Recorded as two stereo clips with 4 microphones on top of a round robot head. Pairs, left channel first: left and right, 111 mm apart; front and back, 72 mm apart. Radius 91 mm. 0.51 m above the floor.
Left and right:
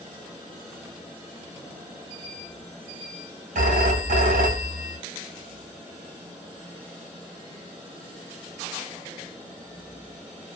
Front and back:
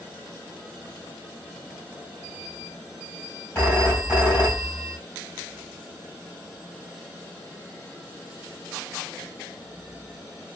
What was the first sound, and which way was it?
A phone ringing, 75° right.